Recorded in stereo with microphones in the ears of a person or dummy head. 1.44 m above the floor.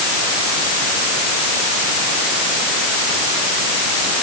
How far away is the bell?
I don't hear a bell.